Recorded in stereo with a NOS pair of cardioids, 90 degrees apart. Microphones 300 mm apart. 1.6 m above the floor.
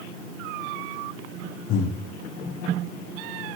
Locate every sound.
1.7 s breathing: 65° left, 0.9 m